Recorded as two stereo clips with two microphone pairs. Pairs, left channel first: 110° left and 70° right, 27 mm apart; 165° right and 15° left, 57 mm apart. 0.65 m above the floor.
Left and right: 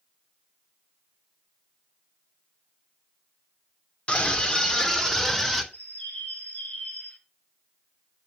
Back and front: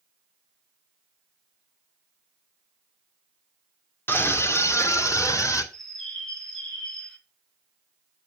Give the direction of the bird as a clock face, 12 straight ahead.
8 o'clock.